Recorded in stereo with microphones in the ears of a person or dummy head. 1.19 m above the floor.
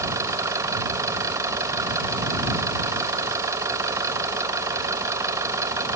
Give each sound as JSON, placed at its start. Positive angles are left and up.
{"t": 0.0, "sound": "an engine running", "side_deg": -10}